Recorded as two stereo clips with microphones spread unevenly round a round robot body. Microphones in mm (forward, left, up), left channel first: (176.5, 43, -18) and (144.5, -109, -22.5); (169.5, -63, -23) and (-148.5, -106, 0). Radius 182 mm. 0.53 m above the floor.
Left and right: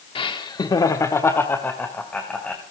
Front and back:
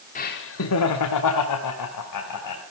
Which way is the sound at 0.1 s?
50° left.